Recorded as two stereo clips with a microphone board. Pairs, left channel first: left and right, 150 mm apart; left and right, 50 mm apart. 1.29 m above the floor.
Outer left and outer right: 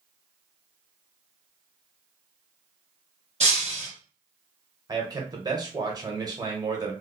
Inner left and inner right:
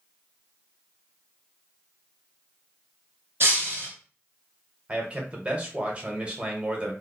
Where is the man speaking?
25° right (ahead or behind), 1.2 m.